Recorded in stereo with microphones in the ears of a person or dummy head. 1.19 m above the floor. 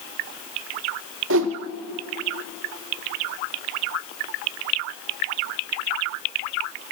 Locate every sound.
1.3 s a whoosh: 70° right (ahead or behind), 0.7 m